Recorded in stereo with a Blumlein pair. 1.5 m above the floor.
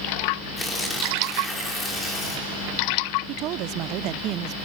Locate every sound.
0.6 s tearing paper: 10° left, 5 m
3.3 s a woman speaking: 35° right, 0.6 m